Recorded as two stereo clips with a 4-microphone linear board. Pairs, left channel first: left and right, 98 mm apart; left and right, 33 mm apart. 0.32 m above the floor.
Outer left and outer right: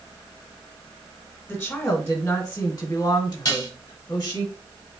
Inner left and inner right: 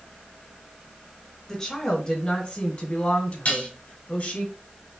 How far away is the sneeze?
No sneeze in this recording.